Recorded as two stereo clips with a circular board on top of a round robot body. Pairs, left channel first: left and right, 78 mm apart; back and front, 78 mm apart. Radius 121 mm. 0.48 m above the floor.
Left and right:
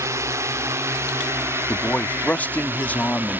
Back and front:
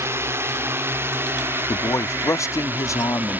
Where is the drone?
50° right; by 3.4 s 45° right.